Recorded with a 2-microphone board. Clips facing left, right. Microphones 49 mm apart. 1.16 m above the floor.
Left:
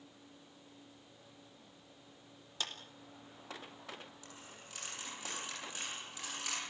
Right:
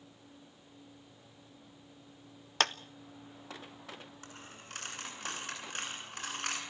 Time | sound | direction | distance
2.6 | a clap | 70° right (ahead or behind) | 0.8 m
4.2 | a dropped coin | 55° right (ahead or behind) | 7.5 m